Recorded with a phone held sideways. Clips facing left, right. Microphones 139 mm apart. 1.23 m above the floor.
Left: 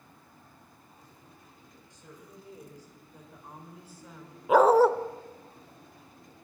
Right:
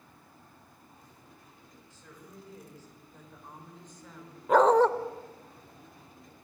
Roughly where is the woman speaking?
Centre.